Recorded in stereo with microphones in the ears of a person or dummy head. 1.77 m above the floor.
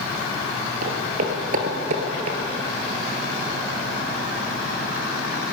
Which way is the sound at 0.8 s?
50° right (ahead or behind).